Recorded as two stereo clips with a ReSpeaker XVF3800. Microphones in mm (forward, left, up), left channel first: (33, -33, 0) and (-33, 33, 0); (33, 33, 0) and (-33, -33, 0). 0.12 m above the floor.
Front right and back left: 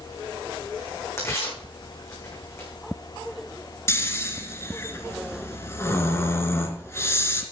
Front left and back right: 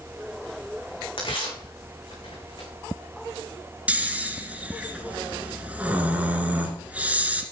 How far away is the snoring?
About 1.9 m.